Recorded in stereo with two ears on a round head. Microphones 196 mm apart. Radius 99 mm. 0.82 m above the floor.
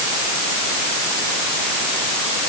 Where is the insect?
No insect in this recording.